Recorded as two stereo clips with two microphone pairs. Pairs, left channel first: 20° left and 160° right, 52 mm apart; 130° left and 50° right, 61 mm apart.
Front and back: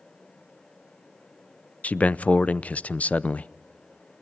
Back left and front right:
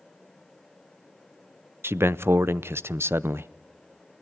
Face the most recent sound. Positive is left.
turn(degrees=-30)